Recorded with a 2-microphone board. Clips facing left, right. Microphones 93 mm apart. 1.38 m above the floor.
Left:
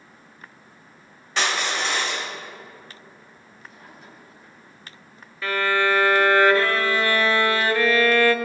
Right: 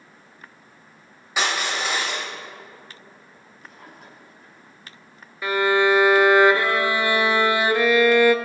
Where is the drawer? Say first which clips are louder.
Right 1 dB; 75° right (ahead or behind), 4.5 m.